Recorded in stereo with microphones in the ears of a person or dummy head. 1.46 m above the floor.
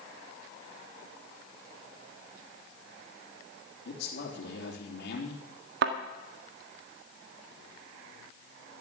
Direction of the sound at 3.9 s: 60° left (ahead or behind).